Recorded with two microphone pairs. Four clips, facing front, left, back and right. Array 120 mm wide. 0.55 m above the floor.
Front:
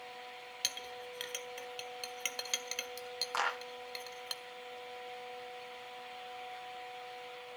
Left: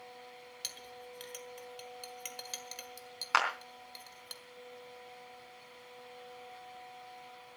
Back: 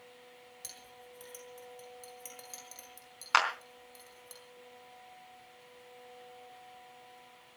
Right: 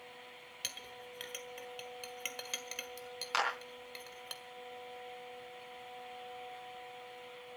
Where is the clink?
15° right, 1.5 m.